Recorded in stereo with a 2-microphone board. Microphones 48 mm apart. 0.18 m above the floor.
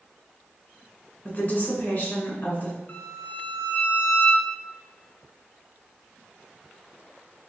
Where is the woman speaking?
35° left (ahead or behind), 1.8 m.